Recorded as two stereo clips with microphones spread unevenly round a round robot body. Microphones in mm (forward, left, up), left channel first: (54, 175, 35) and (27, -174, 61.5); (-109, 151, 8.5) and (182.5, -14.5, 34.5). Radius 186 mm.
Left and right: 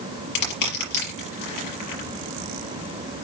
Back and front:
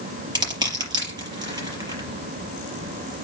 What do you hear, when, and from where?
0.3 s crushing: 50° left, 5 m